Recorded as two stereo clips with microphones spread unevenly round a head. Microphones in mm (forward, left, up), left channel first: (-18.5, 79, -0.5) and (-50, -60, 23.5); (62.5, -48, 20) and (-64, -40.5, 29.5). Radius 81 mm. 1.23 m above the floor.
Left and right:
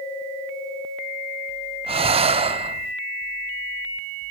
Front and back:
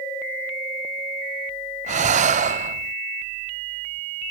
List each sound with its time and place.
1.9 s breathing: 155° right, 0.7 m